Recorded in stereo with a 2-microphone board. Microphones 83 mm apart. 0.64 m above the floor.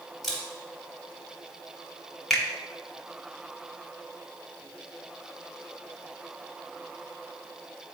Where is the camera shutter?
Centre (ahead or behind), 1.9 m.